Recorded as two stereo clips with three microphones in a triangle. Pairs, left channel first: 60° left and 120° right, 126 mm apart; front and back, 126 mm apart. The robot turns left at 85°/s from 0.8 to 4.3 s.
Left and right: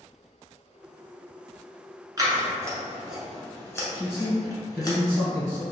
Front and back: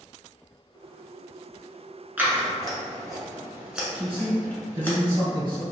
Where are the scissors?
115° right, 0.9 m; by 4.9 s 60° left, 0.9 m.